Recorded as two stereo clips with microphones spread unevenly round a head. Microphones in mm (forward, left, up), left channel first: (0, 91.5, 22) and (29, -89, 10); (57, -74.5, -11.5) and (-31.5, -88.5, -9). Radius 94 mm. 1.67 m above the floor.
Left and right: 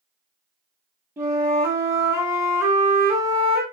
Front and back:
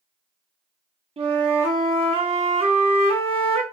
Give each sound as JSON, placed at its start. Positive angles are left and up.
{"t": 1.2, "sound": "a flute", "azimuth_deg": -160, "distance_m": 0.6}